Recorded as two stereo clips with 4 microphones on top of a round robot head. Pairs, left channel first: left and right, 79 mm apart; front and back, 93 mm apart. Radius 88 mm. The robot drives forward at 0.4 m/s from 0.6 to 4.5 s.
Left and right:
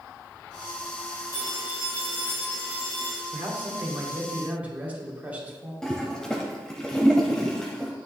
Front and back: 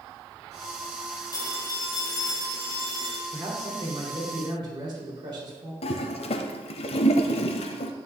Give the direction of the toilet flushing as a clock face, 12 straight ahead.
12 o'clock.